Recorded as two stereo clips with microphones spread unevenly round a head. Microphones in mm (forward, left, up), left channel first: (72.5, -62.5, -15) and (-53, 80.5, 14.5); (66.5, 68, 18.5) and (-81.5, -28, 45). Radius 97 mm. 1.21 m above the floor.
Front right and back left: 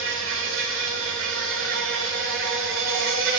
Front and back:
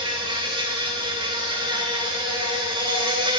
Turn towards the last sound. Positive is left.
turn(degrees=150)